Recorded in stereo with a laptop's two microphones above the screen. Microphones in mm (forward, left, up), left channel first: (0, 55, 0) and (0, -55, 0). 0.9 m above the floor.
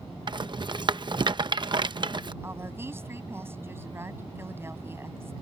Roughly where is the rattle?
Right.